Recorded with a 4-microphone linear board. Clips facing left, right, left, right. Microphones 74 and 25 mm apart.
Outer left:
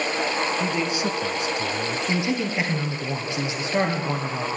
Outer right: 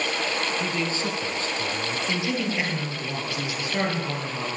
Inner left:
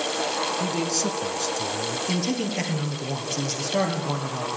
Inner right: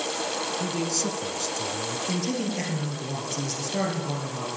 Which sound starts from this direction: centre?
A man speaking, at 0.6 s.